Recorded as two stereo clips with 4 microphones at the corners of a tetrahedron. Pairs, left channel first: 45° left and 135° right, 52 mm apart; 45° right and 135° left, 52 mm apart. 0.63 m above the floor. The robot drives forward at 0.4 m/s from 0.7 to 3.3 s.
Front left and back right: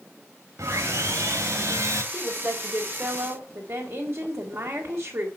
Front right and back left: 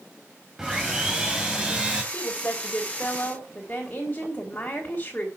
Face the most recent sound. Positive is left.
turn(degrees=-105)